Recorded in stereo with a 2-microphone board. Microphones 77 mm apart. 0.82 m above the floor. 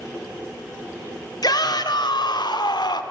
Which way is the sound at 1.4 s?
65° left (ahead or behind).